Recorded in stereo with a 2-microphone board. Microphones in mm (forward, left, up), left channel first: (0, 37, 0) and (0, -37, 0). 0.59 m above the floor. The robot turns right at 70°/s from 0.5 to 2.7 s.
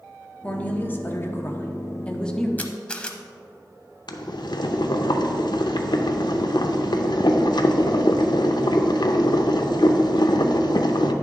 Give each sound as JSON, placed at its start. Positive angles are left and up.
{"t": 0.4, "sound": "a woman speaking", "azimuth_deg": 30, "distance_m": 0.9}
{"t": 2.6, "sound": "a camera shutter", "side_deg": 20, "distance_m": 0.7}
{"t": 4.1, "sound": "boiling", "side_deg": 75, "distance_m": 0.6}